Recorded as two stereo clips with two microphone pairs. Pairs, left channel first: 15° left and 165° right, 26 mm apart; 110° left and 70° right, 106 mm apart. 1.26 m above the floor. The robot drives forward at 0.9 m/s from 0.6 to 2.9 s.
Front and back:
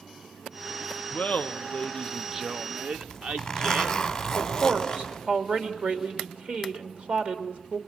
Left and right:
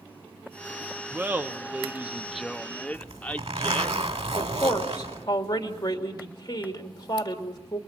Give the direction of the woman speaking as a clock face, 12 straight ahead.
7 o'clock.